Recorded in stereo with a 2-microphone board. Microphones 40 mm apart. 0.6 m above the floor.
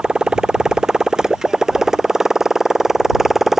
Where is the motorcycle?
20° right (ahead or behind); by 3.6 s 5° right (ahead or behind).